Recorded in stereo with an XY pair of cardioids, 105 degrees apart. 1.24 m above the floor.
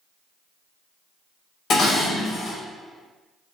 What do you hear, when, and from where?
1.7 s dishes clattering: 60° left, 1.0 m